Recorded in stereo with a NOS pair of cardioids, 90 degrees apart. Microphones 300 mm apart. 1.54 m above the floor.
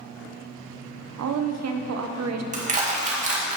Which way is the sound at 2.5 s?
25° right.